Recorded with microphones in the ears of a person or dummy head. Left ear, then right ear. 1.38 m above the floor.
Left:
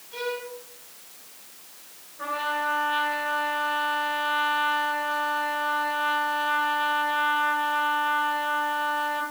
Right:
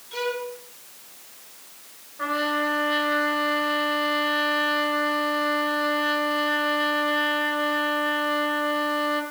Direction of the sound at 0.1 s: 85° right.